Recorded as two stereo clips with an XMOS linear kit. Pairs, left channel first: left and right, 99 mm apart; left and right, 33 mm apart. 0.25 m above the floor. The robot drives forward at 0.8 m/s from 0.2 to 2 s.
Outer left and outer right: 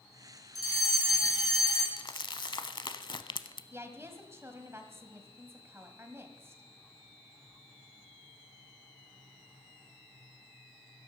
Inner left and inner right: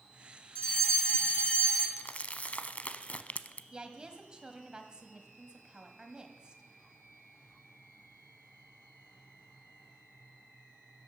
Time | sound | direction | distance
0.6 | a fire alarm | 40° left (ahead or behind) | 3 m
2.0 | crumpling | 50° left (ahead or behind) | 0.7 m
3.7 | a woman speaking | 25° right (ahead or behind) | 1.6 m